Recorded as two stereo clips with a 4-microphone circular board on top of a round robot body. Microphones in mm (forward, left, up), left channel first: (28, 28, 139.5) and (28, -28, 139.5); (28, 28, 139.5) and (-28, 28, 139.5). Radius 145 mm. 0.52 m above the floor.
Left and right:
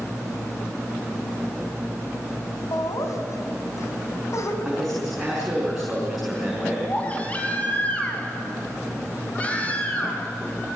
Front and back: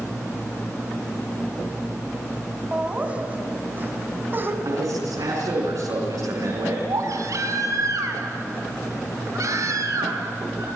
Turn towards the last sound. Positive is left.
turn(degrees=155)